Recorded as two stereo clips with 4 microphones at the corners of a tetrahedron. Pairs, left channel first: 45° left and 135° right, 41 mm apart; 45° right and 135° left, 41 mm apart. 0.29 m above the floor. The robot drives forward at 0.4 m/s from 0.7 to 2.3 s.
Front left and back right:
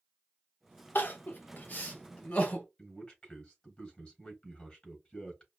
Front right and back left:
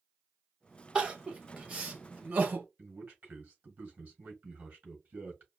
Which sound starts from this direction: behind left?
A man speaking, at 2.8 s.